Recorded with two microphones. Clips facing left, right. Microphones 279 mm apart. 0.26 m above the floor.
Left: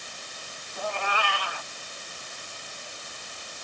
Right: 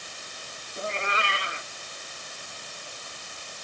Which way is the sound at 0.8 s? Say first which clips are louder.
Left 1 dB; 20° right (ahead or behind).